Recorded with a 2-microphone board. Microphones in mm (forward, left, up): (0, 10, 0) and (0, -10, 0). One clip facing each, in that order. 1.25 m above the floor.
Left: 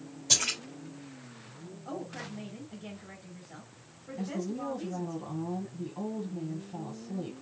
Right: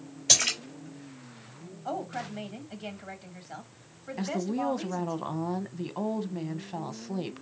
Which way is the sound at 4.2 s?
55° right (ahead or behind).